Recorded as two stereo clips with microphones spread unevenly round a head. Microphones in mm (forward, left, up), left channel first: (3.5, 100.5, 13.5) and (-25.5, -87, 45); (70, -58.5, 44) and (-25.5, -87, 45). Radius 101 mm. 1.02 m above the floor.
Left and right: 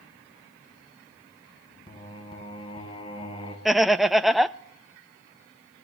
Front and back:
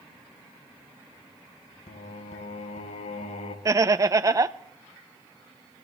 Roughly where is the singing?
Ahead.